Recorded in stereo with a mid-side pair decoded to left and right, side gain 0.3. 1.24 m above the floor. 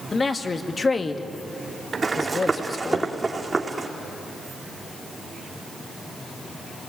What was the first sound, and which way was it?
A man speaking, 40° left.